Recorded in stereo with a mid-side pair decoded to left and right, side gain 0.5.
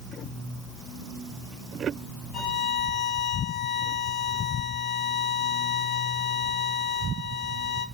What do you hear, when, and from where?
2.3 s a violin: 70° left, 0.8 m